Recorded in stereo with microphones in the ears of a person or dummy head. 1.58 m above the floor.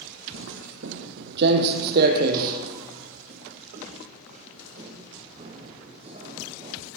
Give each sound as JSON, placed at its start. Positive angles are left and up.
{"t": 0.3, "sound": "footsteps", "side_deg": -60, "distance_m": 3.0}